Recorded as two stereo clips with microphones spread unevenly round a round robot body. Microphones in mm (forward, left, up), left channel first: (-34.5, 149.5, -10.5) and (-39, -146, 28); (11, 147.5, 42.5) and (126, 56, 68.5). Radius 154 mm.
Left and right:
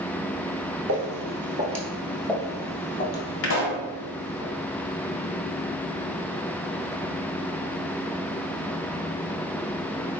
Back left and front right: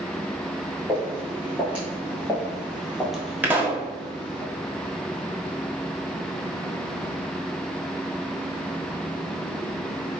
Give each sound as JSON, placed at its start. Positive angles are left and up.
{"t": 0.9, "sound": "footsteps", "azimuth_deg": -110, "distance_m": 1.1}
{"t": 3.4, "sound": "a pop", "azimuth_deg": 40, "distance_m": 1.1}